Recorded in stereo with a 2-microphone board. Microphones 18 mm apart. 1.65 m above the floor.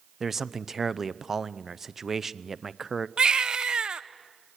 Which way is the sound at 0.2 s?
15° right (ahead or behind).